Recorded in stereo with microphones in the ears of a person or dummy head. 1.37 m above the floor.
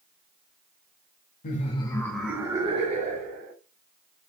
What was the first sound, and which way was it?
Laughter, 35° left (ahead or behind).